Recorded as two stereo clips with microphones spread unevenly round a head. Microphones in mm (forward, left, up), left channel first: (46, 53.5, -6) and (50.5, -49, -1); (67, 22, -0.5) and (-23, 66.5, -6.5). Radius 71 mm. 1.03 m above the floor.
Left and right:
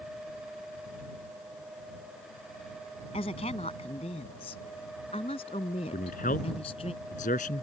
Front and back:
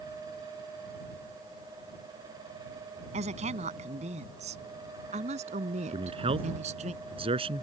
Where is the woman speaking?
145° left; by 6.9 s 150° left.